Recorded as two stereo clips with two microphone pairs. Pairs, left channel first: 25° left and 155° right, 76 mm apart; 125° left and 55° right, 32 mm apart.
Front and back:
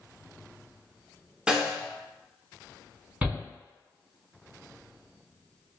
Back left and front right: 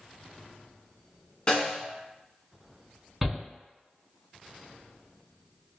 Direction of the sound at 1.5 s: 140° left.